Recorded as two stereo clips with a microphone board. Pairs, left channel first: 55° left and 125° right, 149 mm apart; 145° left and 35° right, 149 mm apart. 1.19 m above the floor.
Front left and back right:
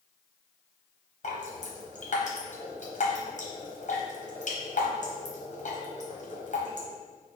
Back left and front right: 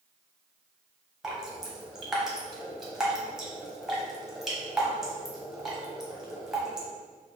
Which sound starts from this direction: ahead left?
Dripping, at 1.2 s.